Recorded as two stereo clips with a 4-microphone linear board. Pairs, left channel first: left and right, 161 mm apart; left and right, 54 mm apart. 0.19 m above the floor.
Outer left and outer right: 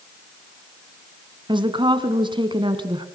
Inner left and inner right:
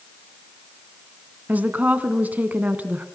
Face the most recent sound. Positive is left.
turn(degrees=-30)  # may be behind; listen again after turning